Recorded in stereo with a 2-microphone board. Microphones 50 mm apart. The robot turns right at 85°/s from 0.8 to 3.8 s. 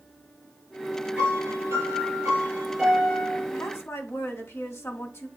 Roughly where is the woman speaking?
Left.